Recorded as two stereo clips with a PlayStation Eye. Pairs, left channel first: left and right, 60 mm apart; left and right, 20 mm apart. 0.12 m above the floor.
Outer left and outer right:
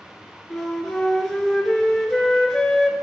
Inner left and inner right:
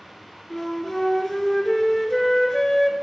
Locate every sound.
0.5 s a flute: 5° left (ahead or behind), 1.2 m